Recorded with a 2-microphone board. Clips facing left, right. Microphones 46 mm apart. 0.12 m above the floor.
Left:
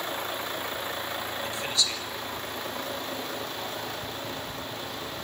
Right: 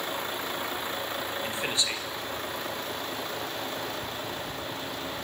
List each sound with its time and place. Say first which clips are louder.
1.4 s a man speaking: left 1 dB; 20° right (ahead or behind), 2.5 m